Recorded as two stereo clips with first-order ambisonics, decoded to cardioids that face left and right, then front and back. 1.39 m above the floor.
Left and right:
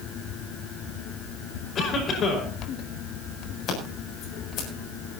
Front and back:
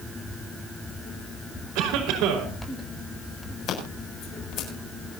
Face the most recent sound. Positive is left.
turn(degrees=40)